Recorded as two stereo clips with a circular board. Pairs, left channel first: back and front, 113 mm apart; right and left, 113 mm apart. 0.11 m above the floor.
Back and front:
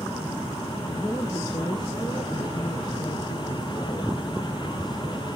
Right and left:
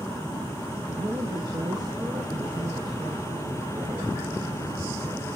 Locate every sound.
0.9 s a woman speaking: 135° left, 2.5 m